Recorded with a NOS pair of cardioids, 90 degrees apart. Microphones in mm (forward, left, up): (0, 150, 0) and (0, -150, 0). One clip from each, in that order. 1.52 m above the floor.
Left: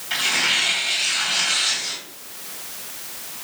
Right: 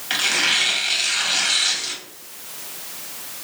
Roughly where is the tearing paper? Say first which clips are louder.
Right 1 dB; ahead right.